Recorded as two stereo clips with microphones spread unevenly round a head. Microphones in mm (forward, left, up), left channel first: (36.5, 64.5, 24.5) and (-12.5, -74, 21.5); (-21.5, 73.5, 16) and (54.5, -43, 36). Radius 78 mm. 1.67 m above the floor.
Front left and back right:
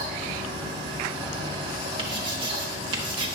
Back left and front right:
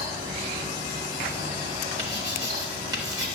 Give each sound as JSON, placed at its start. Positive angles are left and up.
{"t": 0.0, "sound": "a fan", "azimuth_deg": -65, "distance_m": 1.8}
{"t": 2.0, "sound": "writing", "azimuth_deg": -75, "distance_m": 1.2}